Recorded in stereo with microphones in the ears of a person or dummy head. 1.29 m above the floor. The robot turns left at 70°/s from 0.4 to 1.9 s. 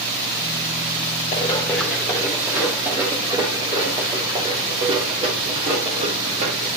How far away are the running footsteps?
About 6 m.